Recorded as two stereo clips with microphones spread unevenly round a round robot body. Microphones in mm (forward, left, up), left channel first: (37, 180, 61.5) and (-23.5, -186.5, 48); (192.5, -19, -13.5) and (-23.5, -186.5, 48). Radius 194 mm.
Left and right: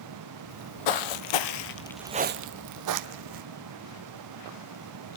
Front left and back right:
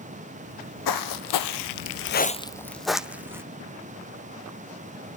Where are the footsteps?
80° left, 1.2 m; by 3.4 s 65° right, 1.5 m.